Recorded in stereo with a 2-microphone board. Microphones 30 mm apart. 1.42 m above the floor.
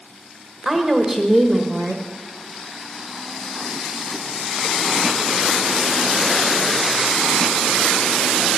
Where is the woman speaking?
10° right (ahead or behind), 1.4 m.